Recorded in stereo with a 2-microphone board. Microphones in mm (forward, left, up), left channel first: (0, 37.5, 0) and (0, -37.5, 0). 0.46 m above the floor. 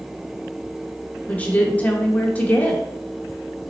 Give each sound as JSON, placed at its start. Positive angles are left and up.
{"t": 1.3, "sound": "a woman speaking", "side_deg": 20, "distance_m": 0.7}